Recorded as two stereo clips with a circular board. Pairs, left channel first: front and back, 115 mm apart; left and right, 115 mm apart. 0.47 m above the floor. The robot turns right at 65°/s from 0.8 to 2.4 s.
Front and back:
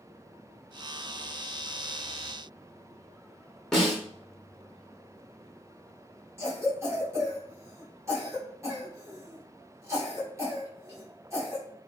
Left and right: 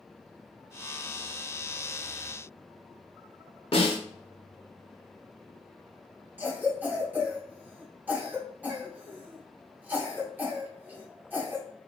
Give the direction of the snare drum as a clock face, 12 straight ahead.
9 o'clock.